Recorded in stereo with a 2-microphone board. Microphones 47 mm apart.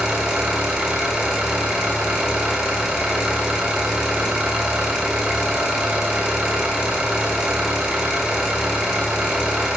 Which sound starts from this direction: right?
An engine running, at 0.0 s.